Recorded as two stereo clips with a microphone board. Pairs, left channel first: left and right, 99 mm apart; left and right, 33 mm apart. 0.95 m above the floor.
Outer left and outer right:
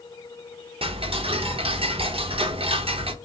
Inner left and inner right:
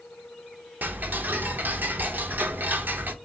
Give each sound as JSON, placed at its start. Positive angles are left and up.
{"t": 0.8, "sound": "ticking", "side_deg": -70, "distance_m": 0.7}